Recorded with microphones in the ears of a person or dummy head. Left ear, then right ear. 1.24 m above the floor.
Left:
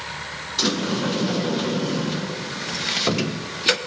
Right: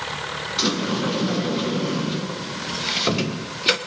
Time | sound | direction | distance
0.6 | a sliding door | 5° left (ahead or behind) | 1.1 m